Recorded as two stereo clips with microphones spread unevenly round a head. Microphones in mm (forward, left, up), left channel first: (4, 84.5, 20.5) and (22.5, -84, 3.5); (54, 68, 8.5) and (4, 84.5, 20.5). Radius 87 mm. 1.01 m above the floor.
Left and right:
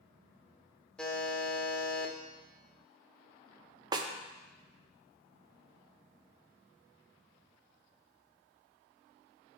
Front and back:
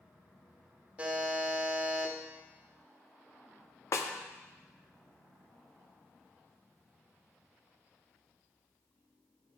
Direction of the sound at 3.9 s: 20° right.